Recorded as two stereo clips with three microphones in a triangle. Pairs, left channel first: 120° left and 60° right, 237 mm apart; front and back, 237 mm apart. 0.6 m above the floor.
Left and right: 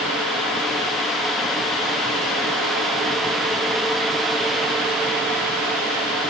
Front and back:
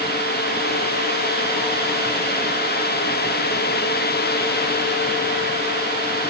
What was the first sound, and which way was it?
Only background noise.